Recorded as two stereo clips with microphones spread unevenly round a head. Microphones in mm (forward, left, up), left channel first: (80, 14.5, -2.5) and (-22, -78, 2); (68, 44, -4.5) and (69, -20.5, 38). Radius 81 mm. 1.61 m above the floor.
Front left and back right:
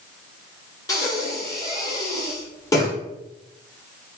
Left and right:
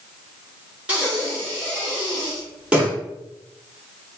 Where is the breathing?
25° right, 1.8 m.